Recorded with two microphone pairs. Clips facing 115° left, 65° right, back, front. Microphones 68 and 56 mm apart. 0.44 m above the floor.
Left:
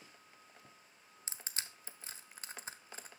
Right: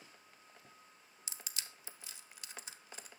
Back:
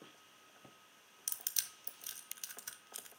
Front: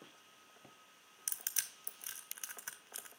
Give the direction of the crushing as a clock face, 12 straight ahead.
10 o'clock.